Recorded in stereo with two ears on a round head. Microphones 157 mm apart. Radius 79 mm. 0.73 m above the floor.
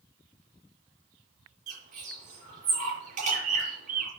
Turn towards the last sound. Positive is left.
turn(degrees=-45)  # may be behind; listen again after turning